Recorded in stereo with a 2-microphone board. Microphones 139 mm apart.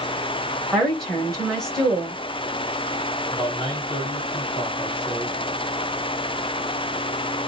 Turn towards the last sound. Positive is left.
turn(degrees=40)  # may be behind; listen again after turning